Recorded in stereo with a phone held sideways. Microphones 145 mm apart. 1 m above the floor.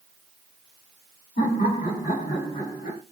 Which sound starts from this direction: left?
Laughter, at 1.4 s.